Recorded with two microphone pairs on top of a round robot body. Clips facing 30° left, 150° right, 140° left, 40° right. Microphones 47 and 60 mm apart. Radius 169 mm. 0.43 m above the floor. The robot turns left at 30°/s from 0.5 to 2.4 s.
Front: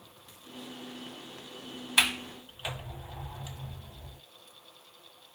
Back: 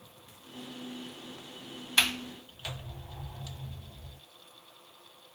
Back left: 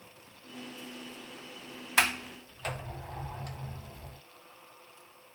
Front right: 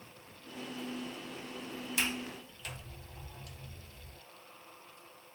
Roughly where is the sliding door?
Left.